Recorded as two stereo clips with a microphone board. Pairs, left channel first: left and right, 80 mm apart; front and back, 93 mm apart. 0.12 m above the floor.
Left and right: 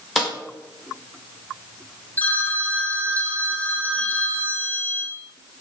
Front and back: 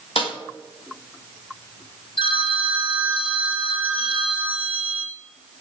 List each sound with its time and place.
0.2 s a snare drum: 5° left, 6.5 m
2.2 s a phone ringing: 20° left, 3.5 m